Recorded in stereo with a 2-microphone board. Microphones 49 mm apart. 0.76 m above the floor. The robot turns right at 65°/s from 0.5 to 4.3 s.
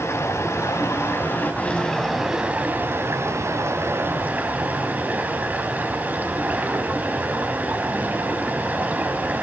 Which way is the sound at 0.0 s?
75° left.